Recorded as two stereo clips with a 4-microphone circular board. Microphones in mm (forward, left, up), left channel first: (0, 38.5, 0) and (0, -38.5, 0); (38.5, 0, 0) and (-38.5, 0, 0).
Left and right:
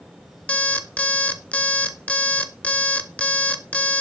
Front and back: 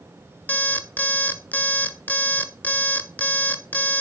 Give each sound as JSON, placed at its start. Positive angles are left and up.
{"t": 0.5, "sound": "an alarm clock", "azimuth_deg": 40, "distance_m": 0.5}